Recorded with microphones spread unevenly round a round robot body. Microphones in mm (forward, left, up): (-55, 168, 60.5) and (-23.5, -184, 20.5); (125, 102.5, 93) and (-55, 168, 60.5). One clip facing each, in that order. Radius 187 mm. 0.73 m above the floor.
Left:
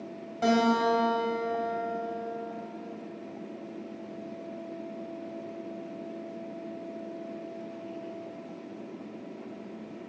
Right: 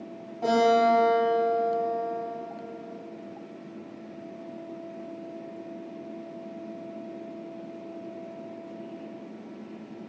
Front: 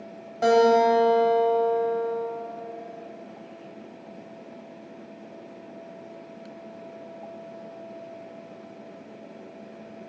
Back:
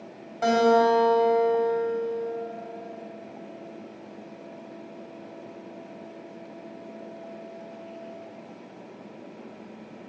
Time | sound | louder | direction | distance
0.4 | a guitar | right 2 dB, front 2 dB | 40° left | 4 m